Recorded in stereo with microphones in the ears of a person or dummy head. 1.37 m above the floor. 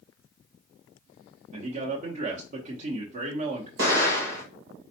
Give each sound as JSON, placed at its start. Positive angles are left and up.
{"t": 1.5, "sound": "a man speaking", "side_deg": -50, "distance_m": 1.0}
{"t": 3.8, "sound": "an explosion", "side_deg": -50, "distance_m": 2.0}